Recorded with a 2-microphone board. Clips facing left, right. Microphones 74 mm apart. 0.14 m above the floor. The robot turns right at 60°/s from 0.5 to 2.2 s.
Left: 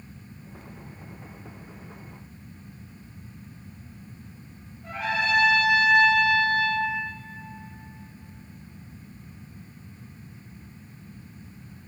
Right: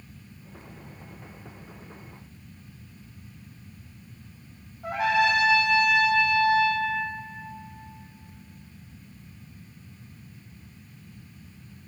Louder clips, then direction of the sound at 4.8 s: Right 5 dB; 85° right.